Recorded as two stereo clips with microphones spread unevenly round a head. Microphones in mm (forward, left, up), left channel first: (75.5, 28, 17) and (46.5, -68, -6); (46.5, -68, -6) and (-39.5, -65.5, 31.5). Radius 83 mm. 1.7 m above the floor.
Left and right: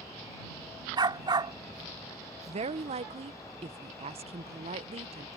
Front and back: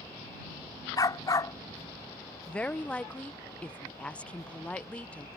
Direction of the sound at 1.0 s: 60° right.